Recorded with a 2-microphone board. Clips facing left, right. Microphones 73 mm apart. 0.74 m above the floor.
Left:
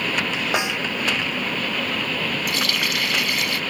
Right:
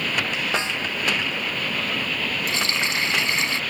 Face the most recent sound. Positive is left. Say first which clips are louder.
# left 1 dB
turn(degrees=-25)  # may be behind; listen again after turning